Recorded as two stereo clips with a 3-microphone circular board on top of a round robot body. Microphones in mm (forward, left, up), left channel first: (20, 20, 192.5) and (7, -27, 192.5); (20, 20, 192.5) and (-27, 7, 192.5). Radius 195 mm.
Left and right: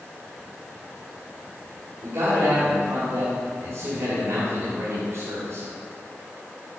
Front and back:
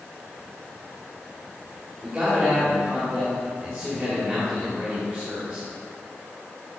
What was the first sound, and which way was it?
A man speaking, 80° right.